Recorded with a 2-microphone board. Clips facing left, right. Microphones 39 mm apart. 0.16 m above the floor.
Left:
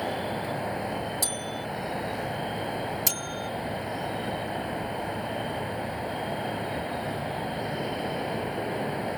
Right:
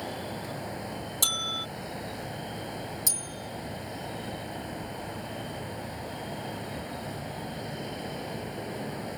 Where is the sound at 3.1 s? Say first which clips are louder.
Left 6 dB; 60° left (ahead or behind).